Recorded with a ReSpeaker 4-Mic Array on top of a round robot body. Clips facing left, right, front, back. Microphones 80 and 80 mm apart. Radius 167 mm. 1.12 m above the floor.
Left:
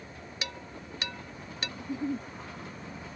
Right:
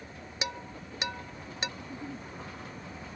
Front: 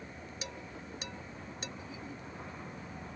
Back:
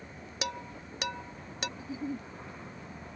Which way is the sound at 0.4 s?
160° right.